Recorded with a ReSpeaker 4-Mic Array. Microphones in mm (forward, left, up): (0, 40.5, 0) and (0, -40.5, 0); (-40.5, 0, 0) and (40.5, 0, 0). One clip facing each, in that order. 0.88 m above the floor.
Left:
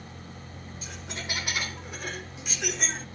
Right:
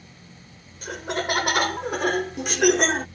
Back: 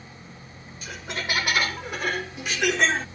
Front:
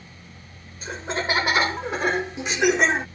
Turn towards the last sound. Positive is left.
turn(degrees=-70)